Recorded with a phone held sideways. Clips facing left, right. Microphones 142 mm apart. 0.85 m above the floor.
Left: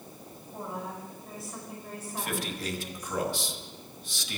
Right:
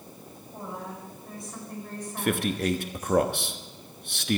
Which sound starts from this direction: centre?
A woman speaking, at 0.5 s.